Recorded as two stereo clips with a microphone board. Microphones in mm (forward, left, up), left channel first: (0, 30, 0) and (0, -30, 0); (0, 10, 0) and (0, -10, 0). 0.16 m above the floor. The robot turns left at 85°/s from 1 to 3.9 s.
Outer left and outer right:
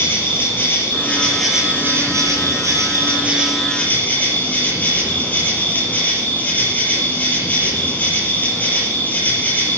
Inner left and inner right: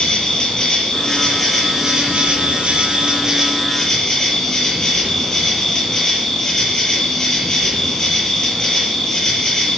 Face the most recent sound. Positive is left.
turn(degrees=150)